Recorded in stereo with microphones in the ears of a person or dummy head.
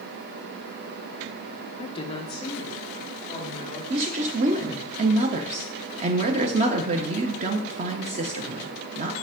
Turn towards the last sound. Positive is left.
turn(degrees=-40)  # may be behind; listen again after turning